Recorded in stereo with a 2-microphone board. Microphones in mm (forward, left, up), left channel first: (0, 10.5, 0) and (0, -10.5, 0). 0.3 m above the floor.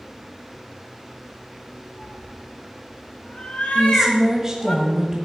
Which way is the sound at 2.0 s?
65° left (ahead or behind).